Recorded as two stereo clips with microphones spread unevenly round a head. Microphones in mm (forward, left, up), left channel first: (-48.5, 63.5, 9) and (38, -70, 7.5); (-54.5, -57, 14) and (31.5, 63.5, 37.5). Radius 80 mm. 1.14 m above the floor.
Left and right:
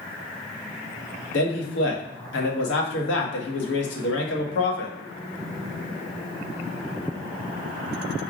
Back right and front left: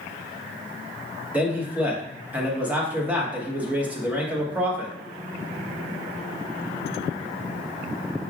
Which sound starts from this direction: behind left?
A man speaking, at 1.3 s.